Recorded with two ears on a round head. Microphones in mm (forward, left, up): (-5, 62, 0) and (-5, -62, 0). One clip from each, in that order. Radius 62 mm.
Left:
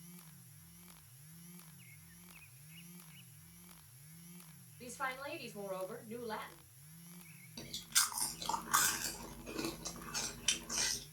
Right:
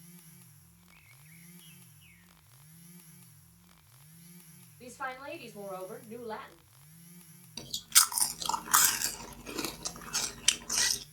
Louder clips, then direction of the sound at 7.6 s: Right 8 dB; 35° right (ahead or behind).